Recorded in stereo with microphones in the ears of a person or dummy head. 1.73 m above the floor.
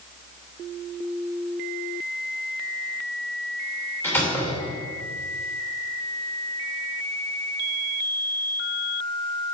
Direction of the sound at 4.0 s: 10° left (ahead or behind).